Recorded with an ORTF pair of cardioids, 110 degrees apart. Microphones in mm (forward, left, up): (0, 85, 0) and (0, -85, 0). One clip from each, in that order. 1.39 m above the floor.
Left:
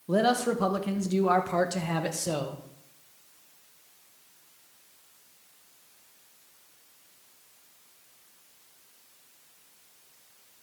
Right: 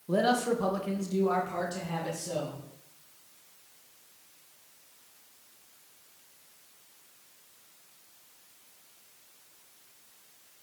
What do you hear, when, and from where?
0.1 s a man speaking: 15° left, 1.6 m; by 2.6 s 70° left, 2 m